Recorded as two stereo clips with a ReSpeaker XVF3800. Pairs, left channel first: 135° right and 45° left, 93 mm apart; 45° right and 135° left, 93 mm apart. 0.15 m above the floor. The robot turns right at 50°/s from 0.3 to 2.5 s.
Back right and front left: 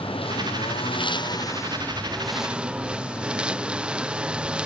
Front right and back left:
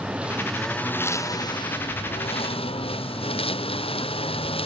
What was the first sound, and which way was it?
A lawn mower, 145° right.